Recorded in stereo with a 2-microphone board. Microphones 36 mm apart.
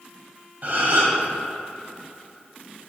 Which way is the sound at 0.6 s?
45° right (ahead or behind).